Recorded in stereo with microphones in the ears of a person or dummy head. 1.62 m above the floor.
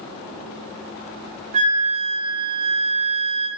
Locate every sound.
1.5 s a flute: 40° right (ahead or behind), 0.9 m